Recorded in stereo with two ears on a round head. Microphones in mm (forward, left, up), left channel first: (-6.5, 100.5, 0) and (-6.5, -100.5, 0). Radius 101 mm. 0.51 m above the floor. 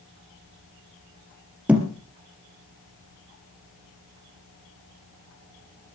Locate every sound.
1.7 s a thud: 5° right (ahead or behind), 3 m